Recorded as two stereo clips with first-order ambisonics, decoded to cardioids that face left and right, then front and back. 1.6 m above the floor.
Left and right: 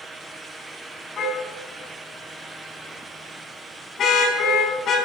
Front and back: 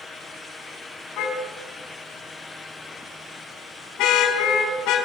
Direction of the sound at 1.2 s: 30° left.